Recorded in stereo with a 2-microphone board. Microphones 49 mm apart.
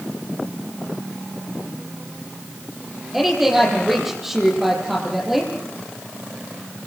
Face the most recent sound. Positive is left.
turn(degrees=-5)  # may be behind; listen again after turning